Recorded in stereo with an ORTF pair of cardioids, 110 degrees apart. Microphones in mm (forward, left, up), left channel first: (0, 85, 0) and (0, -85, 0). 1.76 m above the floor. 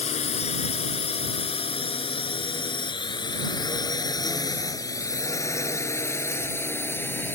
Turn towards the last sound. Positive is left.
turn(degrees=10)